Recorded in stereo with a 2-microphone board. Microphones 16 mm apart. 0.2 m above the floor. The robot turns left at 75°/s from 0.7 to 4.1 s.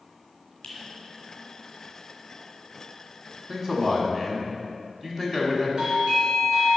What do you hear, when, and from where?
0.6 s a finger snap: 55° left (ahead or behind), 2.5 m
3.5 s a man speaking: 20° right (ahead or behind), 1.6 m; by 5.7 s 25° right (ahead or behind), 1.6 m
5.8 s a doorbell: 55° right (ahead or behind), 2.5 m